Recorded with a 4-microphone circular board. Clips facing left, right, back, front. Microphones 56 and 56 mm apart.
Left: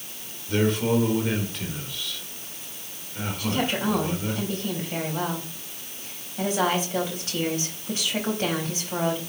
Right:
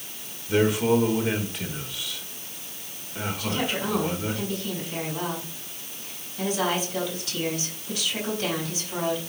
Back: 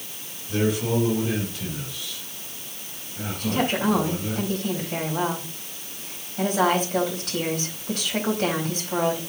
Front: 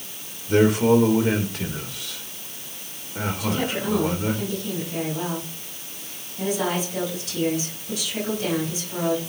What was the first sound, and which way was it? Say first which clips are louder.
A man speaking: right 2 dB, front 7 dB; 10° right.